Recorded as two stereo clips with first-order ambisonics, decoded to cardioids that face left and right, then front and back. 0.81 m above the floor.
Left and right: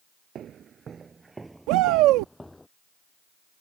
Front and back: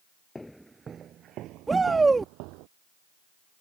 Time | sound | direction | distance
0.3 | footsteps | 70° right | ?
1.7 | a shout | 105° right | ?